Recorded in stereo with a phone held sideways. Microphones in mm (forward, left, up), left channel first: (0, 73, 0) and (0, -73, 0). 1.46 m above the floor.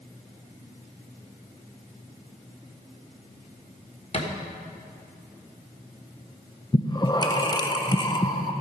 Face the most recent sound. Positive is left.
turn(degrees=25)  # may be behind; listen again after turning